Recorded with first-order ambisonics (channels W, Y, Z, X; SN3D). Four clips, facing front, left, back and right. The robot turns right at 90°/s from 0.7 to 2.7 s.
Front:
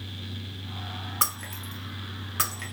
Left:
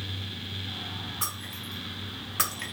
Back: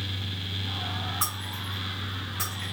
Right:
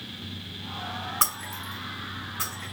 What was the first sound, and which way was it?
Breaking glass, 60° right.